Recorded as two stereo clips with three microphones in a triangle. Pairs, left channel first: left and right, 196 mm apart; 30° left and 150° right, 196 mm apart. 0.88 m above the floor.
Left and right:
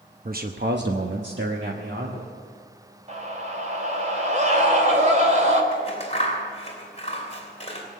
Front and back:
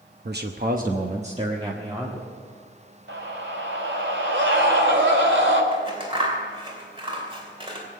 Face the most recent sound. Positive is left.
turn(degrees=145)